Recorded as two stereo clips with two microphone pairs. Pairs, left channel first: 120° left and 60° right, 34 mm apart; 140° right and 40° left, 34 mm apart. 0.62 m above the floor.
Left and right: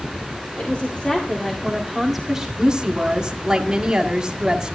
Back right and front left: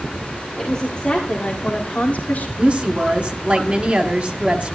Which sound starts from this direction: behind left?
A woman speaking, at 0.6 s.